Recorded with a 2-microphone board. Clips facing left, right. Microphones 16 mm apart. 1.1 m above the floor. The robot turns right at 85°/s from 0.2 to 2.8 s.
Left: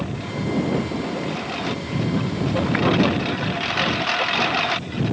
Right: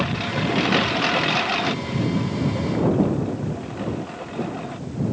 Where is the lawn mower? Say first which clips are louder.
Right 4 dB; 145° right; by 5.1 s 80° left.